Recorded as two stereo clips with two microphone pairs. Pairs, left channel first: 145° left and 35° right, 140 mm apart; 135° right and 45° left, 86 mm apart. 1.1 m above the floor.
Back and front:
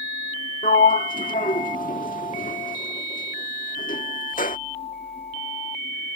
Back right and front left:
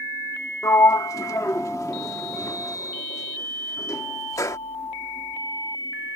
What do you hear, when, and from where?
0.6 s a sliding door: 170° left